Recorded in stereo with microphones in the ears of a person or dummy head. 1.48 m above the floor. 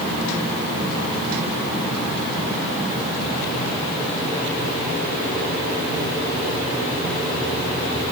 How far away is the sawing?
I don't hear sawing.